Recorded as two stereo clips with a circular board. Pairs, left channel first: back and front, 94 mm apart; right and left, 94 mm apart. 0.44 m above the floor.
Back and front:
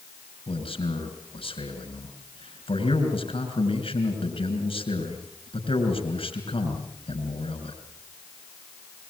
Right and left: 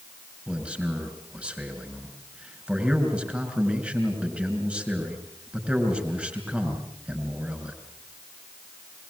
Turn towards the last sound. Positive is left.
turn(degrees=170)